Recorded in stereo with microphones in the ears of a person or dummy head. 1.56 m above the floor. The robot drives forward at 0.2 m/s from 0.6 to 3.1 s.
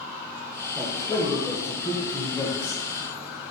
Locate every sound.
0.8 s a man speaking: 10° left (ahead or behind), 0.9 m; by 2.8 s 15° left (ahead or behind), 0.6 m